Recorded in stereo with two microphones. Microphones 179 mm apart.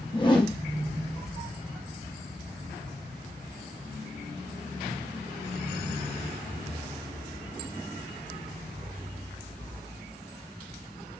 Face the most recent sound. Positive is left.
turn(degrees=25)  # may be behind; listen again after turning